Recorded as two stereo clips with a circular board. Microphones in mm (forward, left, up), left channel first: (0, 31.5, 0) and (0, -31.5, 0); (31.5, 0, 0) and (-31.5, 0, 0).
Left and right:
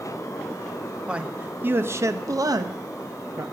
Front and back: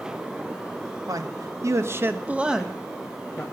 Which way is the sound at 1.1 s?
165° right.